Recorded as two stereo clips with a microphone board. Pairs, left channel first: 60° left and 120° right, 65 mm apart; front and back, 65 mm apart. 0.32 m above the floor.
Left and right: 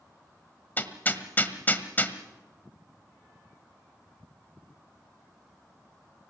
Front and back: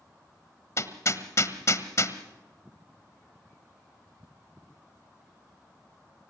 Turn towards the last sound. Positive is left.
turn(degrees=10)